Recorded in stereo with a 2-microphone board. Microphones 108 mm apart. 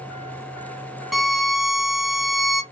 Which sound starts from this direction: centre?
A violin, at 1.1 s.